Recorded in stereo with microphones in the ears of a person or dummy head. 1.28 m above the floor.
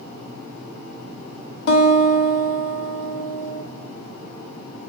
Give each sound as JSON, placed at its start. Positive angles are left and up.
{"t": 1.7, "sound": "a guitar", "side_deg": 60, "distance_m": 0.9}